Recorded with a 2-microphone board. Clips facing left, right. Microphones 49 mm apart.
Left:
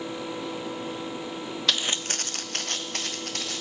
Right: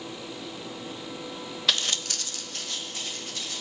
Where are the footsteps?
5° right (ahead or behind), 0.6 m; by 3.6 s 70° left (ahead or behind), 2.5 m.